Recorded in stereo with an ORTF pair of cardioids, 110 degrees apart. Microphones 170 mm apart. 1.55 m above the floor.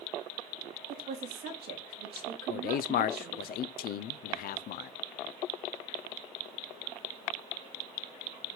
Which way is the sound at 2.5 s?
60° left.